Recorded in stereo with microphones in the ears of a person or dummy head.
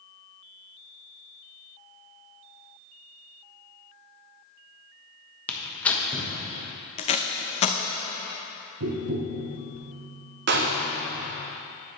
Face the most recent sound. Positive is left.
turn(degrees=-55)  # may be behind; listen again after turning